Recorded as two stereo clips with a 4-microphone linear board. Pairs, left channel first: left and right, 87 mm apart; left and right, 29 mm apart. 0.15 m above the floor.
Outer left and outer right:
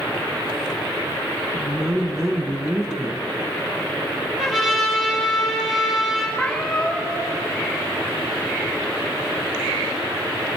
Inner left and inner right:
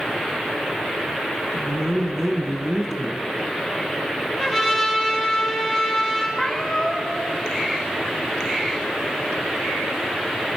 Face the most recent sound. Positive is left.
turn(degrees=10)  # may be behind; listen again after turning